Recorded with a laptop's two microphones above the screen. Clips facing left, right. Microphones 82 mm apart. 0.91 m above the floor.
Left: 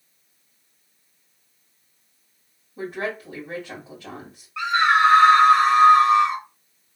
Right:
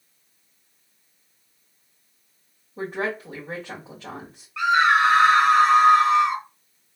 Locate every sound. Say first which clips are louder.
2.8 s a woman speaking: right 1 dB; 30° right (ahead or behind), 1.6 m
4.6 s a scream: even; centre (ahead or behind), 1.3 m